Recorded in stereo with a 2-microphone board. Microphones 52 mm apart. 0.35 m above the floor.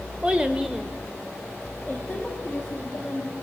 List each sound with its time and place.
0.2 s a child speaking: 20° right (ahead or behind), 1.1 m; by 3.3 s 15° left (ahead or behind), 3.5 m